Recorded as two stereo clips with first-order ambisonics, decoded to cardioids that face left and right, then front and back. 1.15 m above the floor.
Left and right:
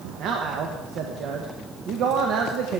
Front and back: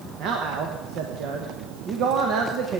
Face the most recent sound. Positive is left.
turn(degrees=-135)